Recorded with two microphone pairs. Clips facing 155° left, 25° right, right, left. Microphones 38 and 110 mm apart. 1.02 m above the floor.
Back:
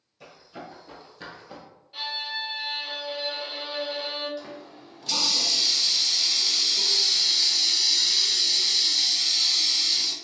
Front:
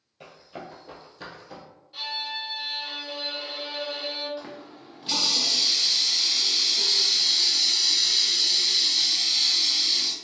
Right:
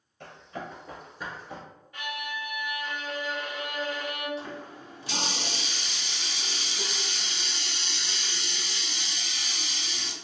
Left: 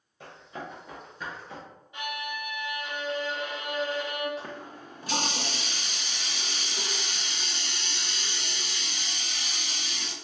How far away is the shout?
I don't hear a shout.